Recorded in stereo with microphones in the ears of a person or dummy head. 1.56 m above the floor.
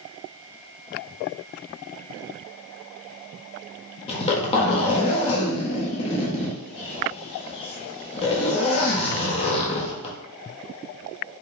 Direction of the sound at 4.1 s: 30° left (ahead or behind).